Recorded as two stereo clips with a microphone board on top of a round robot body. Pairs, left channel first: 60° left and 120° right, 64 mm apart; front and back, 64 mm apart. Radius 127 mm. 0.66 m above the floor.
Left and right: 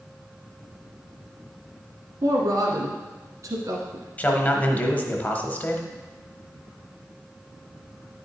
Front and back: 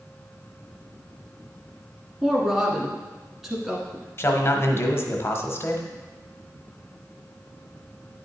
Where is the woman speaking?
105° right, 1.5 m.